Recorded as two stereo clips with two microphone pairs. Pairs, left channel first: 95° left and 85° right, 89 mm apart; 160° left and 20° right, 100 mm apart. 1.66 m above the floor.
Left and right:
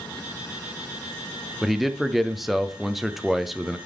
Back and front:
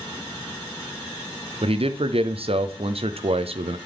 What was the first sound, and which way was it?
A man speaking, straight ahead.